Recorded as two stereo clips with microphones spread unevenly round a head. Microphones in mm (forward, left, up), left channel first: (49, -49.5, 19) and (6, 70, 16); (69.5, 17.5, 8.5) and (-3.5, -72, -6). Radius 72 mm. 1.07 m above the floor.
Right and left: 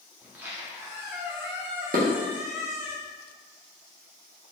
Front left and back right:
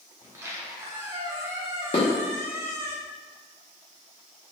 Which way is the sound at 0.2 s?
175° left.